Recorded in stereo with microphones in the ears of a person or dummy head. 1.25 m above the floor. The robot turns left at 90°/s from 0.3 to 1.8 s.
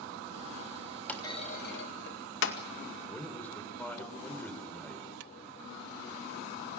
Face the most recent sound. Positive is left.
turn(degrees=10)  # may be behind; listen again after turning